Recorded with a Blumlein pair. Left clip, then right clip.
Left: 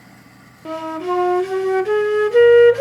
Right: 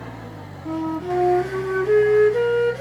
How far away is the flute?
About 0.6 m.